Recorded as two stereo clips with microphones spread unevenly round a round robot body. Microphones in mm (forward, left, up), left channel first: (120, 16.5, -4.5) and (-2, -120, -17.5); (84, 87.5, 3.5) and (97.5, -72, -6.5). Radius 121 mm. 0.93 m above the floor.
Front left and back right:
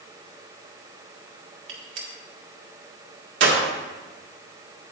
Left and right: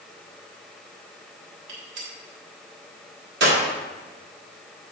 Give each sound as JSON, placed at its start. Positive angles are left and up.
{"t": 1.7, "sound": "a gunshot", "azimuth_deg": -120, "distance_m": 1.7}